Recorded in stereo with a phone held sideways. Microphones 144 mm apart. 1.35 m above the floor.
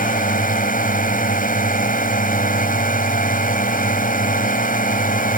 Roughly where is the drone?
Left.